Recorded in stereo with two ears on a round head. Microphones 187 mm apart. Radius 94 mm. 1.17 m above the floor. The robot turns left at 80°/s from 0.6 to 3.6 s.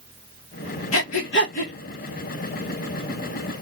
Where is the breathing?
70° left (ahead or behind), 1.3 m; by 1.7 s 30° left (ahead or behind), 1.3 m.